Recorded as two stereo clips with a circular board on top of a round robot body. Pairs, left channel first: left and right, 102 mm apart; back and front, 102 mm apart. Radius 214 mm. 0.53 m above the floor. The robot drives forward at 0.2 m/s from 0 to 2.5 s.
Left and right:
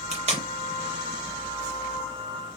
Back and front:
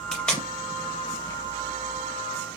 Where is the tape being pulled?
95° right, 0.6 m; by 0.5 s 100° right, 0.6 m.